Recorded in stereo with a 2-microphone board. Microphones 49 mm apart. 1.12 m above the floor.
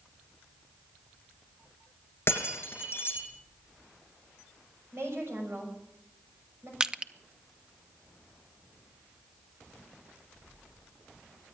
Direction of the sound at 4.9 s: 60° right (ahead or behind).